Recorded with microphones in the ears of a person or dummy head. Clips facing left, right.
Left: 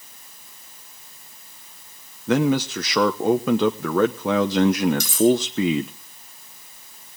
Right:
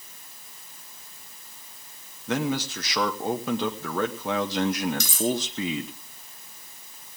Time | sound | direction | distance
2.3 | a man speaking | 60° left (ahead or behind) | 1.0 m
5.0 | cutlery clinking | 80° right | 6.5 m